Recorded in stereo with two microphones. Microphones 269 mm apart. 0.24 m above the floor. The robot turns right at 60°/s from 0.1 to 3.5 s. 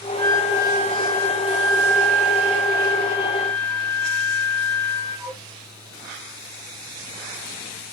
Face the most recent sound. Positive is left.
turn(degrees=5)